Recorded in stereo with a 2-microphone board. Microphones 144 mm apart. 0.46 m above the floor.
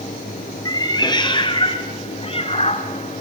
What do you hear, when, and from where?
0.7 s a cat meowing: 25° left (ahead or behind), 3 m; by 3.2 s 50° left (ahead or behind), 2.0 m